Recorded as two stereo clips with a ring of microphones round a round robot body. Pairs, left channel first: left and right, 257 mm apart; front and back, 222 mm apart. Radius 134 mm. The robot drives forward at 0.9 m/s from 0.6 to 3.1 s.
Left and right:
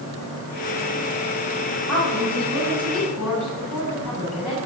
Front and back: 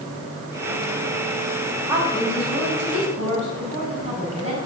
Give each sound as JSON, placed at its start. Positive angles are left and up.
{"t": 1.9, "sound": "a woman speaking", "azimuth_deg": 175, "distance_m": 5.0}